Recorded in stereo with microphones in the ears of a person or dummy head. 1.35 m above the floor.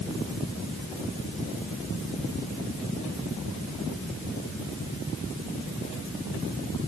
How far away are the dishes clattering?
I don't hear dishes clattering.